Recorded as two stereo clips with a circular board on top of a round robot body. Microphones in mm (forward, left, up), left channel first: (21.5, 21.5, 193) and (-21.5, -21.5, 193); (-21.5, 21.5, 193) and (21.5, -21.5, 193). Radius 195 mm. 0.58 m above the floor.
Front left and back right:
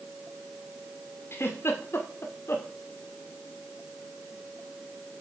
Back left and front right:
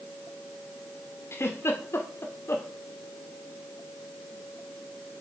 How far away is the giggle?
About 2 m.